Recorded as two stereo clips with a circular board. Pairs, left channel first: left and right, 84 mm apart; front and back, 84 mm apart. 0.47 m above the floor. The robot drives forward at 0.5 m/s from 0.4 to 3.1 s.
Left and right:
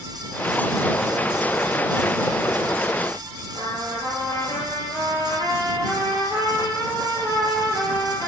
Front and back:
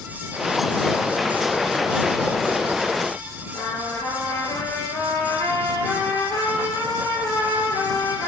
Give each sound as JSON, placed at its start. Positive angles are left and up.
{"t": 3.5, "sound": "a trumpet", "azimuth_deg": 55, "distance_m": 3.5}